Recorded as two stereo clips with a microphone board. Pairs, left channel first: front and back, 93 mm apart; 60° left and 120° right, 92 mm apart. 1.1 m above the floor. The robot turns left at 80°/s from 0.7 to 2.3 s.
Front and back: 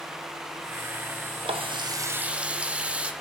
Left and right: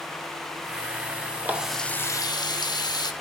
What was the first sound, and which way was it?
A running tap, 170° left.